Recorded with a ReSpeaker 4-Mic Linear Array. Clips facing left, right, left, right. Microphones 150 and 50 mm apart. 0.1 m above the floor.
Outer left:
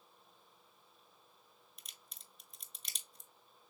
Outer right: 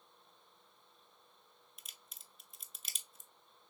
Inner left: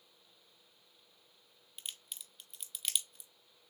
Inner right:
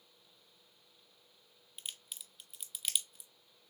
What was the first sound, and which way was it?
A crack, 5° right (ahead or behind).